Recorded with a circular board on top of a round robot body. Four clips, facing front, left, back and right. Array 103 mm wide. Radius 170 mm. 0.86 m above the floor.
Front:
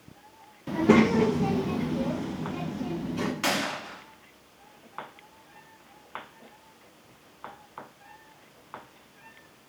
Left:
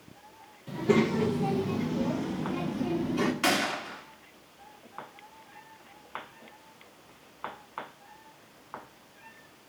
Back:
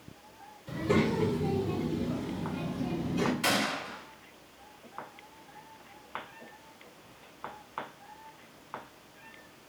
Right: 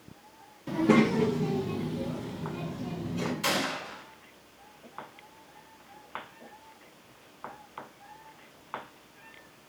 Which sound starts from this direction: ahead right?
A child speaking, at 0.7 s.